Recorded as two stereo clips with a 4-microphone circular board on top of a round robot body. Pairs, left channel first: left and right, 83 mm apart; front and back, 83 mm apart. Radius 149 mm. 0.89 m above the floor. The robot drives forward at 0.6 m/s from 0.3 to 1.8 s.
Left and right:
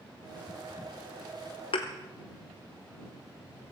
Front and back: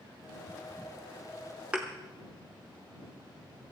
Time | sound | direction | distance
1.7 | a thud | 105° left | 0.7 m